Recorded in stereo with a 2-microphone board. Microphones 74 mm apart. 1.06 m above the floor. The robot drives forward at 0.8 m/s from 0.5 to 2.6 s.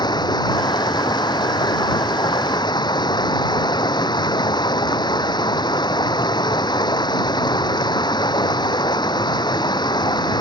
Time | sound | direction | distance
0.0 | running water | 75° left (ahead or behind) | ?